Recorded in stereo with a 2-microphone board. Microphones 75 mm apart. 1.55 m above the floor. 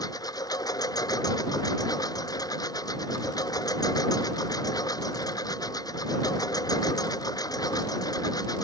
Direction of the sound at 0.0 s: 60° left (ahead or behind).